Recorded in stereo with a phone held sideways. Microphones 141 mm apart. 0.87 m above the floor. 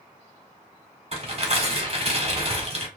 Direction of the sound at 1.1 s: 45° right (ahead or behind).